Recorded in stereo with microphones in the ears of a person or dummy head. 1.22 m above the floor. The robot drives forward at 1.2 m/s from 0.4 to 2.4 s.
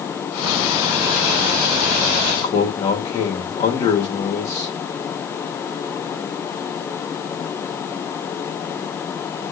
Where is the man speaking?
35° left (ahead or behind), 3.5 m.